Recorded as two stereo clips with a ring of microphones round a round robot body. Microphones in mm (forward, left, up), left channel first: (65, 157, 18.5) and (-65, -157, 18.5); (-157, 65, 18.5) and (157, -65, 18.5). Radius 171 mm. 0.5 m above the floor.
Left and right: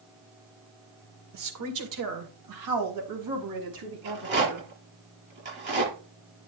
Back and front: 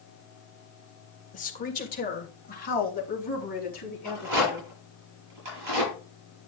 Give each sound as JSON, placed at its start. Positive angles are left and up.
{"t": 1.3, "sound": "a woman speaking", "azimuth_deg": -140, "distance_m": 1.9}
{"t": 4.0, "sound": "a rattle", "azimuth_deg": -50, "distance_m": 7.5}